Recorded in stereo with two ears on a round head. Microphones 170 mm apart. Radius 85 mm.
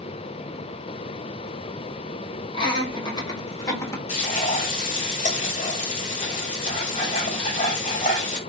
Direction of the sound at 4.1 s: 35° left (ahead or behind).